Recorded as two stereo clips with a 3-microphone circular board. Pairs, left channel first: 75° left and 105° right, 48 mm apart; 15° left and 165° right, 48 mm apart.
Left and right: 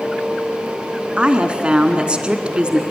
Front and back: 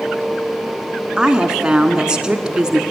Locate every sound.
1.2 s a woman speaking: 125° right, 1.2 m